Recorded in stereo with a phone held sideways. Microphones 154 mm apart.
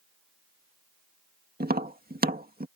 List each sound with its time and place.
1.6 s tapping: 80° right